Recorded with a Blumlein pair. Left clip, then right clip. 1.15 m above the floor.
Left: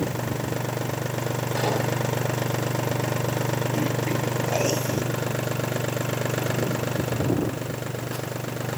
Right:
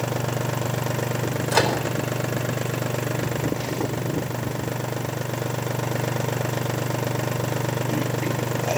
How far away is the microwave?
About 4.5 m.